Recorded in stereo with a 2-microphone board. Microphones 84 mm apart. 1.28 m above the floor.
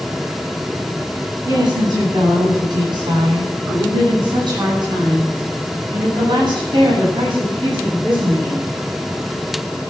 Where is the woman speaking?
55° right (ahead or behind), 10 m; by 8.7 s 75° right (ahead or behind), 10 m.